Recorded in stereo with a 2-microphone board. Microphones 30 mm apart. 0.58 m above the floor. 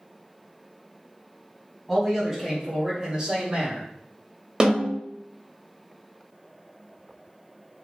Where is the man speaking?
5° right (ahead or behind), 1.6 m; by 3.9 s 45° right (ahead or behind), 2 m.